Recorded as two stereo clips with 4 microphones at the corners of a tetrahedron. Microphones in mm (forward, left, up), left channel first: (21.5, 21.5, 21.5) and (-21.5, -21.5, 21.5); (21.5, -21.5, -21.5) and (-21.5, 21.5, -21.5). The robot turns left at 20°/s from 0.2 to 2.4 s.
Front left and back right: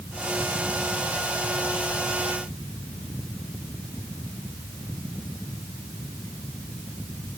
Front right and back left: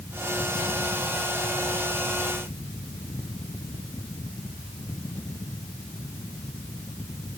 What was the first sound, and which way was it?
Only background noise.